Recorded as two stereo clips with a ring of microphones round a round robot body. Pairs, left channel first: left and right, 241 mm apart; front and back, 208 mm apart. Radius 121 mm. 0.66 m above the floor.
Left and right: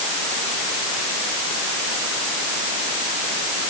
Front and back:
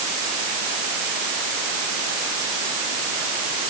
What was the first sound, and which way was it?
Only background noise.